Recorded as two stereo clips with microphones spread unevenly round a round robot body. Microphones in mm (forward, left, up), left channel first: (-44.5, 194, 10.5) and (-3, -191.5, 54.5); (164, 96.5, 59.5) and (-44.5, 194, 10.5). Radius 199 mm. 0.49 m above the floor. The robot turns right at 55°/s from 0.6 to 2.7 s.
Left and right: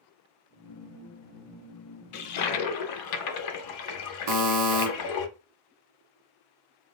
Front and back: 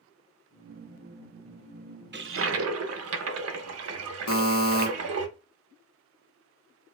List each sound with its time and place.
2.1 s a toilet flushing: 105° left, 0.6 m; by 5.3 s 135° left, 0.6 m
4.3 s a buzzer: 45° right, 0.8 m